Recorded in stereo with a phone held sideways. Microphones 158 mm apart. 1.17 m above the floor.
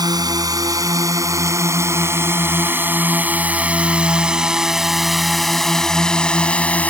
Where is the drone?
25° right (ahead or behind); by 6.9 s 10° left (ahead or behind).